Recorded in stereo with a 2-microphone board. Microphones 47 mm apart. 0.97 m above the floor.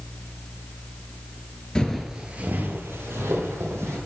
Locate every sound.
1.8 s footsteps: 20° left (ahead or behind), 1.0 m; by 4.0 s 70° right (ahead or behind), 2.5 m